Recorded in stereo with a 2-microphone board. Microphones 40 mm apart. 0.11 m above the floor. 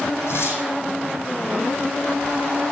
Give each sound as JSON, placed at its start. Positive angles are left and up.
{"t": 0.3, "sound": "tearing paper", "side_deg": 70, "distance_m": 5.5}